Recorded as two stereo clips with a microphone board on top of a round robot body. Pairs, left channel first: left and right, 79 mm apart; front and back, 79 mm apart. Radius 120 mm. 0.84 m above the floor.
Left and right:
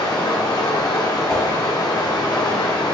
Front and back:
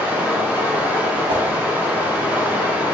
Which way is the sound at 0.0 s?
110° left.